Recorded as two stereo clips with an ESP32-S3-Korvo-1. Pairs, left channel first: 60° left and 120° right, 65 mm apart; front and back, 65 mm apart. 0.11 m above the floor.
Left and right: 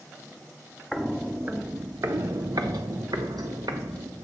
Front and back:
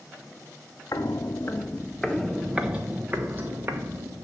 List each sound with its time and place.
0.9 s footsteps: 35° right, 0.8 m; by 4.2 s 125° right, 1.6 m